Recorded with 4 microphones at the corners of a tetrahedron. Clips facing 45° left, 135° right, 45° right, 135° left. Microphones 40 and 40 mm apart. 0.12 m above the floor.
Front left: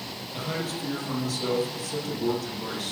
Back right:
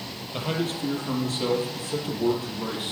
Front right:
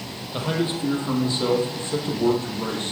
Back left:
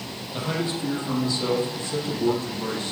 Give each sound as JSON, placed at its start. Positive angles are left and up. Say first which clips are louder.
{"t": 0.3, "sound": "a man speaking", "louder": "back right 4 dB, front right 3 dB", "azimuth_deg": -100, "distance_m": 4.5}